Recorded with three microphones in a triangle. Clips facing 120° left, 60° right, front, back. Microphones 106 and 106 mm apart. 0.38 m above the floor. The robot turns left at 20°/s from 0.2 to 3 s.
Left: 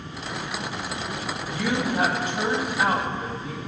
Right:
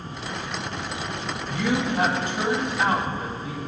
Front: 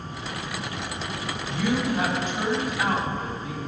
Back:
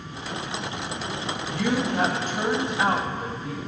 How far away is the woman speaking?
About 2.5 m.